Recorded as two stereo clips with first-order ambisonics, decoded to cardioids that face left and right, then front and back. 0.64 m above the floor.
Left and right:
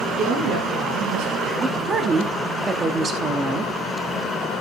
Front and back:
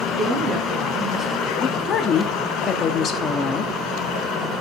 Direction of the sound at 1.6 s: 35° right.